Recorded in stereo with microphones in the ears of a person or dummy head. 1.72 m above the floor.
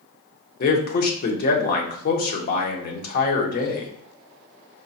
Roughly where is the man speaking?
Left.